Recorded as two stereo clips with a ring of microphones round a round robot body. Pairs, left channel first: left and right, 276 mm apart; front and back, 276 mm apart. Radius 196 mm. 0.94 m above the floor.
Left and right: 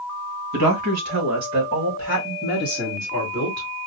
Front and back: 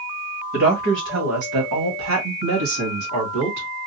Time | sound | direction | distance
0.5 | a woman speaking | 115° right | 1.5 m